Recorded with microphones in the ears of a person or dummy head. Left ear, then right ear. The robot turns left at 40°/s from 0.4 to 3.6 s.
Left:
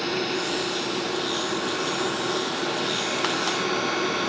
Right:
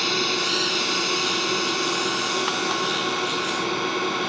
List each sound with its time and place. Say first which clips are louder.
0.0 s a drone: right 4 dB; 45° right (ahead or behind); by 4.3 s 15° right (ahead or behind)